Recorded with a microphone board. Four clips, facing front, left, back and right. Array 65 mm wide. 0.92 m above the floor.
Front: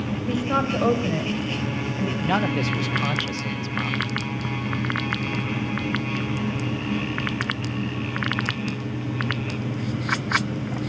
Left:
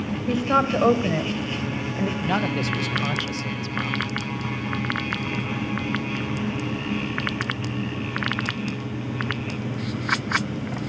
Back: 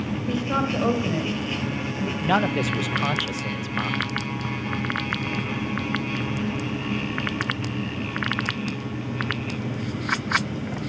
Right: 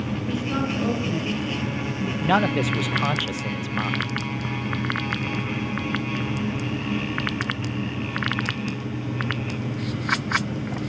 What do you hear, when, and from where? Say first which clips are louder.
0.3 s a woman speaking: left 7 dB, front 2 dB; 80° left, 4 m
2.2 s a man speaking: right 7 dB, back 2 dB; 115° right, 0.5 m